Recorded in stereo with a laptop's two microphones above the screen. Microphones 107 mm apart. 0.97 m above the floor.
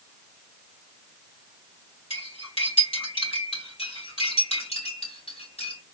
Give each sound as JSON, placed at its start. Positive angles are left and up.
{"t": 2.1, "sound": "cutlery clinking", "side_deg": 60, "distance_m": 2.5}
{"t": 3.8, "sound": "cutlery clinking", "side_deg": 70, "distance_m": 2.5}